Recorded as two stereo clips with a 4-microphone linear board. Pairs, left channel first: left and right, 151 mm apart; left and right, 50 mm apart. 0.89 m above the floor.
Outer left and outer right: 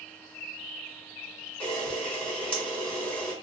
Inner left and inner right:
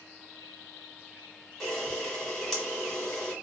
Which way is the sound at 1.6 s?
10° left (ahead or behind).